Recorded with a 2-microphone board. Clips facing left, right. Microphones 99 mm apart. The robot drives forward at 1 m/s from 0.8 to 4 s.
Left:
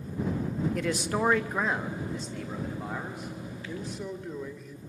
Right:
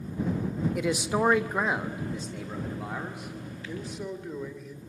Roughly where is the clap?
No clap in this recording.